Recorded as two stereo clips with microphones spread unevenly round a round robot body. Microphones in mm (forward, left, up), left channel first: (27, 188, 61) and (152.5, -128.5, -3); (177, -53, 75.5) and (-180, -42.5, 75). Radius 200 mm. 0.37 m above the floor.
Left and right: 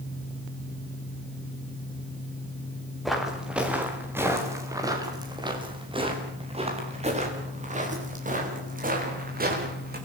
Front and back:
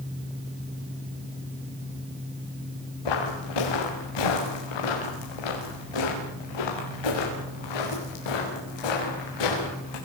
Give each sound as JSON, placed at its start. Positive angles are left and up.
{"t": 3.0, "sound": "footsteps", "azimuth_deg": 20, "distance_m": 5.5}